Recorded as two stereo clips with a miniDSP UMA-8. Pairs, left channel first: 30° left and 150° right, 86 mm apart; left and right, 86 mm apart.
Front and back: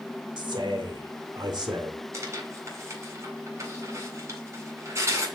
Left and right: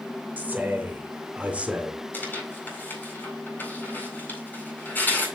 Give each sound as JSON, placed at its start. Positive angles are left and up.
{"t": 0.4, "sound": "a man speaking", "azimuth_deg": -160, "distance_m": 2.5}
{"t": 2.1, "sound": "tearing paper", "azimuth_deg": 160, "distance_m": 4.0}